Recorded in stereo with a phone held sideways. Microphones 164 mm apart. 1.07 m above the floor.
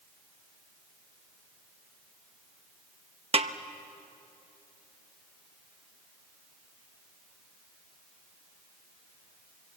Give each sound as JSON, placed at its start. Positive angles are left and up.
{"t": 3.3, "sound": "a snare drum", "side_deg": -40, "distance_m": 0.9}